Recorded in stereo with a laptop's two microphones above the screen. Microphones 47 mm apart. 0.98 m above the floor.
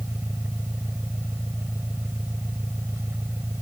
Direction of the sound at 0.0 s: 60° right (ahead or behind).